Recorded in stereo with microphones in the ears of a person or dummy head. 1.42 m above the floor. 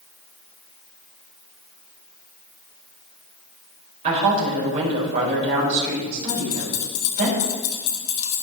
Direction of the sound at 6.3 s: 75° left (ahead or behind).